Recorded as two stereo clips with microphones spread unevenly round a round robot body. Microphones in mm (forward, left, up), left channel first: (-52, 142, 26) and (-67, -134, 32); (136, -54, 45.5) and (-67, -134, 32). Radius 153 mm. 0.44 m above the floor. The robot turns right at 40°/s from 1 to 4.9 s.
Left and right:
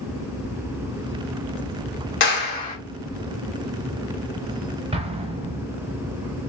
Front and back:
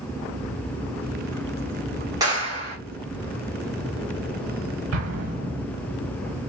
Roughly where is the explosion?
Behind.